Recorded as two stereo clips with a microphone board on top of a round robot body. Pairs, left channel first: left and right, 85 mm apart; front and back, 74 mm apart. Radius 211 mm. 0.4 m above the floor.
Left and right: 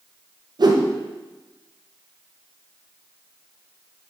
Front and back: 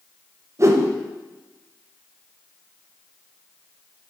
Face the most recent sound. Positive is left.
turn(degrees=-130)